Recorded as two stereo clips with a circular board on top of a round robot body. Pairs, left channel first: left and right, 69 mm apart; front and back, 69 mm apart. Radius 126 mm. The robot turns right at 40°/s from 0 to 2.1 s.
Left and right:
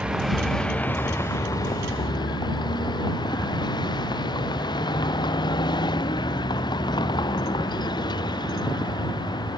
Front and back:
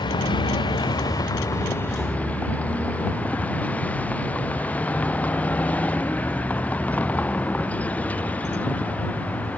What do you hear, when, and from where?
0.0 s a vehicle: 15° right; by 9.6 s 70° left